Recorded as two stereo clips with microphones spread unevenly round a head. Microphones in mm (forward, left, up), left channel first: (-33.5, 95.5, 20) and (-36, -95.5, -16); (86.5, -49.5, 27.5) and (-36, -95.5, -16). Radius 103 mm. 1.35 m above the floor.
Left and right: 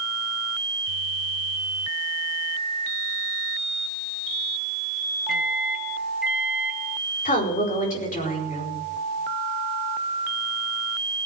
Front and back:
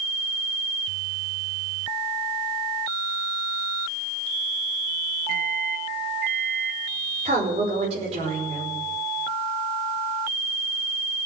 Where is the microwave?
Straight behind, 2.0 m.